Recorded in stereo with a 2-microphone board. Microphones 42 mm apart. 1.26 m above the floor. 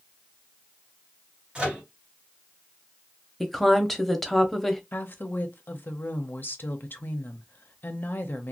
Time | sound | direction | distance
1.6 | a microwave | 25° right (ahead or behind) | 1.7 m
3.4 | a woman speaking | 5° left (ahead or behind) | 0.6 m
4.9 | a woman speaking | 50° left (ahead or behind) | 0.6 m